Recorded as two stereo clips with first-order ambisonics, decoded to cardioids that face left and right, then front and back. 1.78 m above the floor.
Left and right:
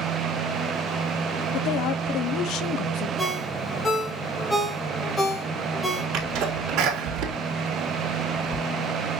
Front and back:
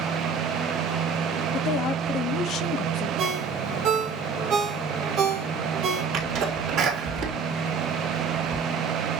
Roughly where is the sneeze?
Behind right.